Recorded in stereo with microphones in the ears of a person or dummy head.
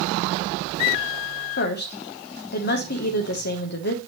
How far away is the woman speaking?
About 1.4 m.